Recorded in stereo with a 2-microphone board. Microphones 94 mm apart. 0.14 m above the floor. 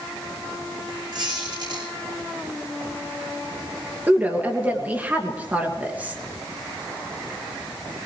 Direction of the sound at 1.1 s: 50° right (ahead or behind).